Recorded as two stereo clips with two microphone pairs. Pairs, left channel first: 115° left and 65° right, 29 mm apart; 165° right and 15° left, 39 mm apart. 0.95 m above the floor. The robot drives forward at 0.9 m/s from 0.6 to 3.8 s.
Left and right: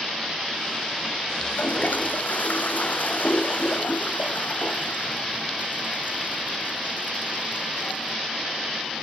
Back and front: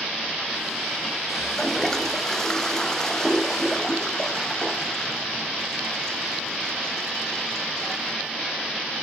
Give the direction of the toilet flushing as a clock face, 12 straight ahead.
8 o'clock.